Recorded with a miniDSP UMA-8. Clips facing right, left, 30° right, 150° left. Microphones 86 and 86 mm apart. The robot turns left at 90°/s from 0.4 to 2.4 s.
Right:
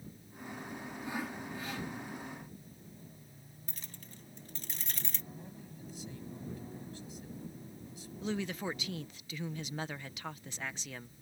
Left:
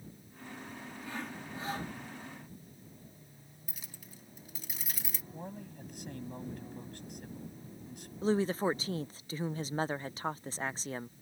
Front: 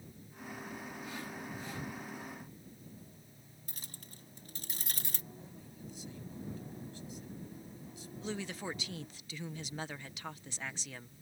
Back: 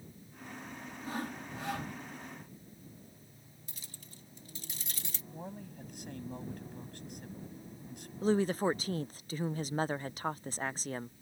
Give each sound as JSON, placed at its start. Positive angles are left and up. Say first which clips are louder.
{"t": 1.0, "sound": "sawing", "louder": "right 3 dB, back 8 dB", "azimuth_deg": -160}
{"t": 3.7, "sound": "keys jangling", "louder": "even, front 2 dB", "azimuth_deg": 5}
{"t": 5.3, "sound": "a man speaking", "louder": "left 5 dB, back 7 dB", "azimuth_deg": 120}
{"t": 8.2, "sound": "a woman speaking", "louder": "left 7 dB, back 12 dB", "azimuth_deg": 125}